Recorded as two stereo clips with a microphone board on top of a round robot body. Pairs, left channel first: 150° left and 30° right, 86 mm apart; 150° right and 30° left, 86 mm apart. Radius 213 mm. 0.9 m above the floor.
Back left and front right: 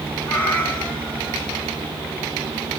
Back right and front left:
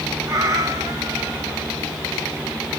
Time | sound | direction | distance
0.3 | a cat meowing | 85° left | 4 m